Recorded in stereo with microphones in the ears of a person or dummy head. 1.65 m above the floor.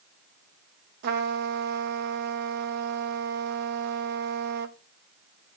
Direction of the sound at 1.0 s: 60° right (ahead or behind).